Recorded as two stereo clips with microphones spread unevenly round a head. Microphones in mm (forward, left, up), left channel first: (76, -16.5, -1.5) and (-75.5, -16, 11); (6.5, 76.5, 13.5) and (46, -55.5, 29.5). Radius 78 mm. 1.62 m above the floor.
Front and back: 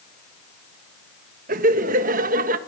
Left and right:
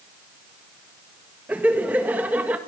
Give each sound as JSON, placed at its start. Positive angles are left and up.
{"t": 1.5, "sound": "laughter", "azimuth_deg": -150, "distance_m": 1.6}